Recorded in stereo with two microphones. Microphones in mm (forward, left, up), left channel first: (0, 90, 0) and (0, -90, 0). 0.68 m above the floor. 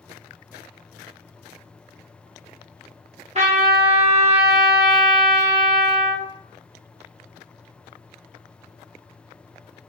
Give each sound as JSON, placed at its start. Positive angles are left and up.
{"t": 3.4, "sound": "a trumpet", "side_deg": -40, "distance_m": 0.9}